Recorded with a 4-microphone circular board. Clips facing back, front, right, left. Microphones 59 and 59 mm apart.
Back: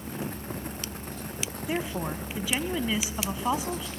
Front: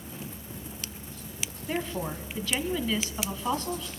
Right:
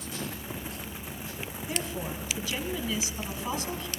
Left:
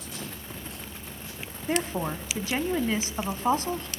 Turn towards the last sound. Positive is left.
turn(degrees=105)